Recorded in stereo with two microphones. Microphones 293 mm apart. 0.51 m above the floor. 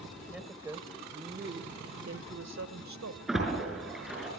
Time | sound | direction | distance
0.3 | a woman speaking | centre (ahead or behind) | 2 m
3.3 | a splash | centre (ahead or behind) | 5.5 m